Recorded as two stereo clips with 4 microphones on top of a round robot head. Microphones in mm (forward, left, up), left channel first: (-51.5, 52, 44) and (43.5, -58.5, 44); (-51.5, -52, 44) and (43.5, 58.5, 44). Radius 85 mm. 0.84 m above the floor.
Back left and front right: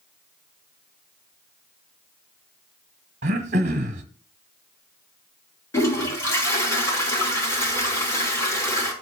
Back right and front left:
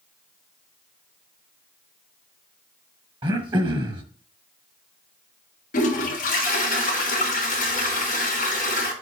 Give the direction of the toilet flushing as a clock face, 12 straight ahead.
5 o'clock.